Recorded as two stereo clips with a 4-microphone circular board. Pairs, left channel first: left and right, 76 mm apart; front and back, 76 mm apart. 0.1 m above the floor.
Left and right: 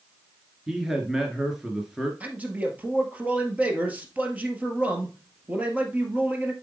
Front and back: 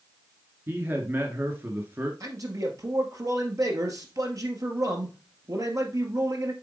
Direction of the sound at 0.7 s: 170° right.